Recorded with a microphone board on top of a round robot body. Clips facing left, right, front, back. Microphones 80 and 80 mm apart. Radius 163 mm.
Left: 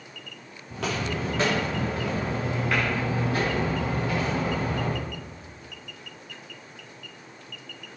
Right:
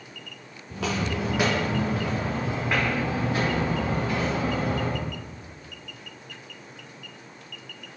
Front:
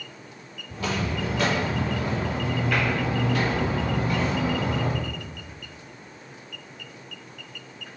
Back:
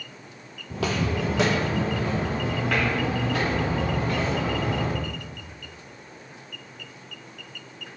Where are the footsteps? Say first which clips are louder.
Right 1 dB, back 2 dB; 175° left, 0.9 m; by 5.0 s 160° right, 7.5 m.